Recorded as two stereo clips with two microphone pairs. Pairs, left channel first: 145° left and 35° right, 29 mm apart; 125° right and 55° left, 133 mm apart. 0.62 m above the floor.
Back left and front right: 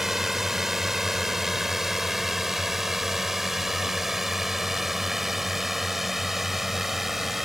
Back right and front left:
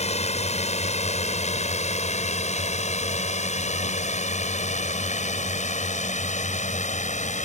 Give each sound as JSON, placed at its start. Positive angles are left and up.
{"t": 0.0, "sound": "a drone", "azimuth_deg": -110}